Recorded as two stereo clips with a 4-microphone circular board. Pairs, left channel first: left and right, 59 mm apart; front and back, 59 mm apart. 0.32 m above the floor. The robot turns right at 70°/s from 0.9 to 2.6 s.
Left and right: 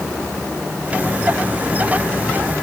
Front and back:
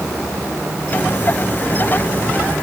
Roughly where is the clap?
I don't hear a clap.